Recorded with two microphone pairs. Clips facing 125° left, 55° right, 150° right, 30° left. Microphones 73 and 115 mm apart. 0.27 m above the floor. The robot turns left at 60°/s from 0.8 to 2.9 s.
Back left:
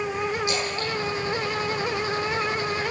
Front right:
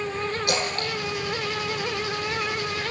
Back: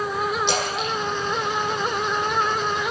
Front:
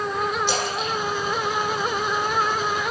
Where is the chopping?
No chopping in this recording.